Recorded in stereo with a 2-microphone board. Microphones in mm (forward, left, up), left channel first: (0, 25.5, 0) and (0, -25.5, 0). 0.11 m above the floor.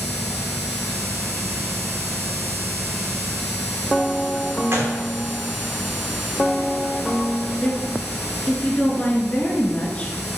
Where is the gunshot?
50° right (ahead or behind), 3 m.